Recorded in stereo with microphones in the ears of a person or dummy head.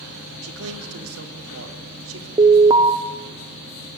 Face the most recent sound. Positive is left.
turn(degrees=-20)  # may be behind; listen again after turning